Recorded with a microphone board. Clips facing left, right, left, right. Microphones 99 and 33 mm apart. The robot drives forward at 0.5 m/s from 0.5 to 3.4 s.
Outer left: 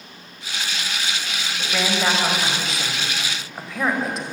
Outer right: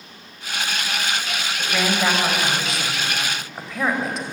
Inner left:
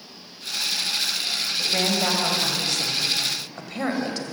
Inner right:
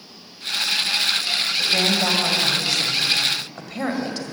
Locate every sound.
1.6 s a woman speaking: centre (ahead or behind), 5.5 m